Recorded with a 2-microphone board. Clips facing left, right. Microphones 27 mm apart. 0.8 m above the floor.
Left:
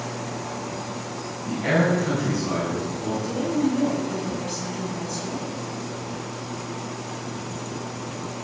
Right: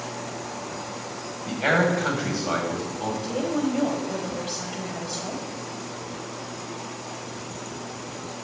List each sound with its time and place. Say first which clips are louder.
1.5 s a man speaking: even; 70° right (ahead or behind), 5.5 m
3.2 s a woman speaking: left 2 dB; 80° right, 4 m